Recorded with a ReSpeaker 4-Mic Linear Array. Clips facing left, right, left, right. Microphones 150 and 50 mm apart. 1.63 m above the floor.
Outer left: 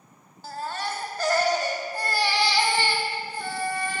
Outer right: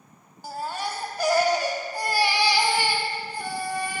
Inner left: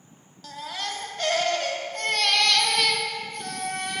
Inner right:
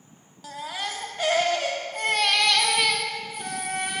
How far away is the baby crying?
About 0.9 m.